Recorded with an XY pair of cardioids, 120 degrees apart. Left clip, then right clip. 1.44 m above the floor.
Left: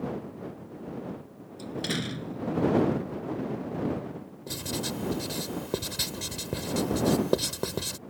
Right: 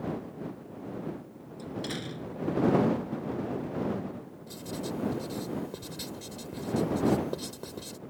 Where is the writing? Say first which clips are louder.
Left 4 dB; 60° left.